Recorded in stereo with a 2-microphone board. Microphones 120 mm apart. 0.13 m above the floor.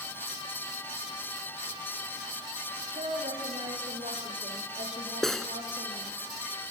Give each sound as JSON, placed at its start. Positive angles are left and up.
{"t": 3.0, "sound": "a woman speaking", "side_deg": -75, "distance_m": 5.5}
{"t": 5.2, "sound": "cutlery clinking", "side_deg": 5, "distance_m": 0.8}